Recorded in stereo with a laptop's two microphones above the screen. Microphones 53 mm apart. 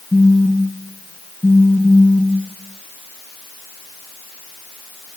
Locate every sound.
0.1 s a phone buzzing: 10° left (ahead or behind), 0.7 m